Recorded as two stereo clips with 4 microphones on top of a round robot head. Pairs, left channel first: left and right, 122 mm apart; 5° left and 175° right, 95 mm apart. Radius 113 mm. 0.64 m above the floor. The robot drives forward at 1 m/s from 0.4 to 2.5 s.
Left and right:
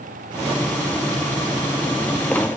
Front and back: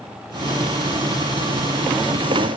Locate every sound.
Only background noise.